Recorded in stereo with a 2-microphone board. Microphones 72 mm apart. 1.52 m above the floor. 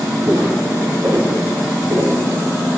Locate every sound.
0.3 s footsteps: 50° right (ahead or behind), 3 m; by 2.1 s 40° right (ahead or behind), 1.9 m